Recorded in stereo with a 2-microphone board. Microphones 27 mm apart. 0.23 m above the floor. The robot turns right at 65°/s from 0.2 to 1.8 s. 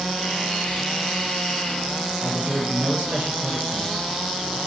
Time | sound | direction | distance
2.2 | a man speaking | 65° right (ahead or behind) | 5 m